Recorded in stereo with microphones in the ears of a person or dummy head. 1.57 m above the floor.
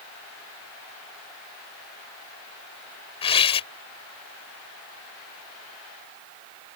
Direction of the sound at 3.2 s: 35° left (ahead or behind).